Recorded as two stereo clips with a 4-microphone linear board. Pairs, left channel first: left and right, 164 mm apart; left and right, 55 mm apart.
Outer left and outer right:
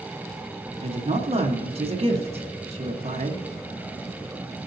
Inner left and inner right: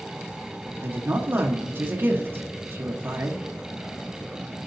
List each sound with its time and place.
0.8 s a woman speaking: 35° right (ahead or behind), 1.5 m